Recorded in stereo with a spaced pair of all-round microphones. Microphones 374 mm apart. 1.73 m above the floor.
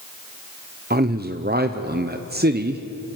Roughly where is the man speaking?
Right.